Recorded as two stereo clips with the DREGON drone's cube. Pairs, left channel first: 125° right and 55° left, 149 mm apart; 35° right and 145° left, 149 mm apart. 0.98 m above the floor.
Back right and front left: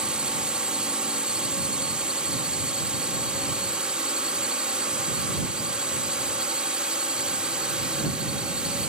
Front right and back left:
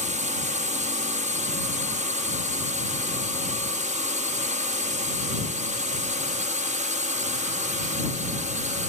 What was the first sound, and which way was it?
A drone, 140° left.